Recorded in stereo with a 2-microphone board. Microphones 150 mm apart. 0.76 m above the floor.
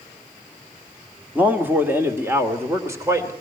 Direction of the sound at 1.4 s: 10° right (ahead or behind).